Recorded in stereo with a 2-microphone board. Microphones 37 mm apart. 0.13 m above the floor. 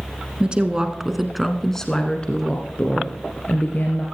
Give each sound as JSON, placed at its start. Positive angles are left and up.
{"t": 0.4, "sound": "a woman speaking", "side_deg": -30, "distance_m": 1.4}